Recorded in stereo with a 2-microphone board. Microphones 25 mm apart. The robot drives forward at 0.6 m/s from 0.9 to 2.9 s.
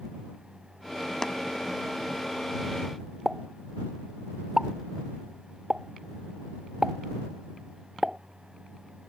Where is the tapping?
20° left (ahead or behind).